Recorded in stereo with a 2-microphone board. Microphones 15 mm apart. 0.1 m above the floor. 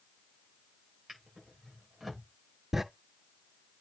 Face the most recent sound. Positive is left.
turn(degrees=-20)  # may be behind; listen again after turning